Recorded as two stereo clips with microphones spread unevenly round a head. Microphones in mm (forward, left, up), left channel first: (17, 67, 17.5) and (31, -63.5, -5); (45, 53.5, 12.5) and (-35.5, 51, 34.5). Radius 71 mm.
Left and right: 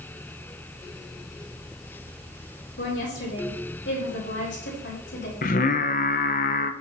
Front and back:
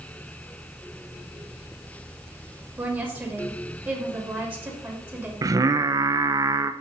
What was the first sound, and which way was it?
A woman speaking, 110° left.